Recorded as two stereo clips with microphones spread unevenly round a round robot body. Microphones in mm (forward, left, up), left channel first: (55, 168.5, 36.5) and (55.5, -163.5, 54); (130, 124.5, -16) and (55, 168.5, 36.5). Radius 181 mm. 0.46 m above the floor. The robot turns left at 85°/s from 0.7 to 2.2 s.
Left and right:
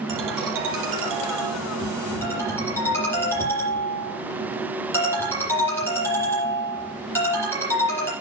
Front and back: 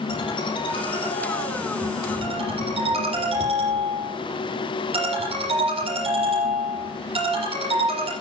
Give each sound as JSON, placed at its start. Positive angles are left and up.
{"t": 0.1, "sound": "a ringtone", "azimuth_deg": -60, "distance_m": 8.5}